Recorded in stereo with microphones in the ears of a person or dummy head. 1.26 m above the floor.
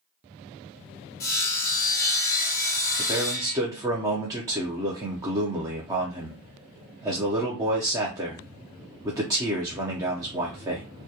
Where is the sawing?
20° left (ahead or behind), 0.8 m.